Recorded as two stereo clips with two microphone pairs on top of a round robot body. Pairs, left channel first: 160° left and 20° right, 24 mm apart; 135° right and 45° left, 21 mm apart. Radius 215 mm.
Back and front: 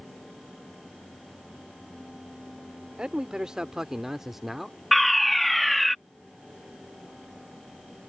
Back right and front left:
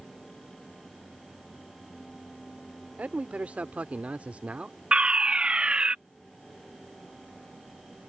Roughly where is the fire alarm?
Left.